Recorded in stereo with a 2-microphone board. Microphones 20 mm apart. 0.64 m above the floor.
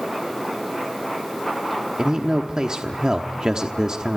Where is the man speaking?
35° right (ahead or behind), 1.0 m.